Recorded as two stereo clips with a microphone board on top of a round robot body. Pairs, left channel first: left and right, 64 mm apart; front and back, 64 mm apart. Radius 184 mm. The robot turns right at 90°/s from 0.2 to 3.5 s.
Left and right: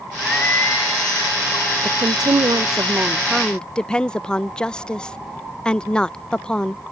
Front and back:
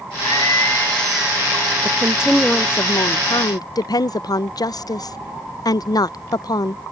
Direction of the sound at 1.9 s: 135° right.